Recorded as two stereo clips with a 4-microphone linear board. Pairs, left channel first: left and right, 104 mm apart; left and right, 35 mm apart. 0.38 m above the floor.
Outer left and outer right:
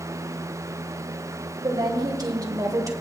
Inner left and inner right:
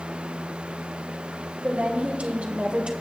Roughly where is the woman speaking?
Right.